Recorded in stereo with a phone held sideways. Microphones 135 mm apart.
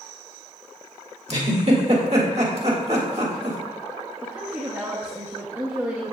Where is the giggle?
50° right (ahead or behind), 1.6 m.